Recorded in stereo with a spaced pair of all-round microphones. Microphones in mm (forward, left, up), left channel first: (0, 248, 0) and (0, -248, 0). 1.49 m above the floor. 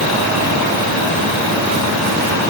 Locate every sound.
Only background noise.